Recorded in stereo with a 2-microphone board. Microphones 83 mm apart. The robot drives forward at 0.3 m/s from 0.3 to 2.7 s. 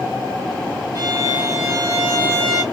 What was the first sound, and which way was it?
A violin, 50° right (ahead or behind).